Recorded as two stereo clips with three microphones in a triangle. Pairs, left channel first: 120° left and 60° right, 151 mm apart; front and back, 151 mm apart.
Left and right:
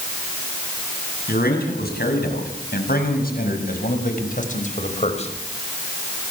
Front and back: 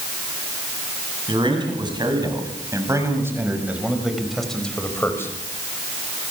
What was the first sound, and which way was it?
A man speaking, 125° left.